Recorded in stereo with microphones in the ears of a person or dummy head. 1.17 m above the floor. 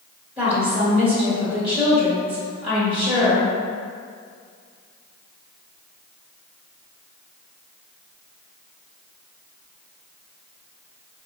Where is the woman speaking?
20° right (ahead or behind), 2.0 m.